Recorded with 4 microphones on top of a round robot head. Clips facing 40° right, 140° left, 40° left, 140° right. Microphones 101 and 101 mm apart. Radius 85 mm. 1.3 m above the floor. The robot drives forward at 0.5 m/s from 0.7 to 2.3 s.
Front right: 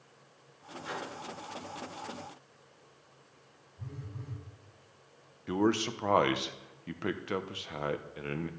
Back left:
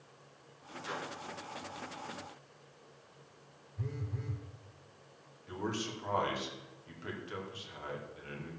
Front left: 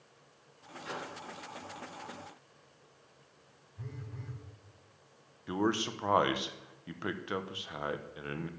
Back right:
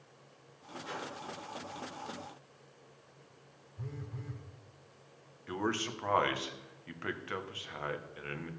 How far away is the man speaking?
About 1.3 m.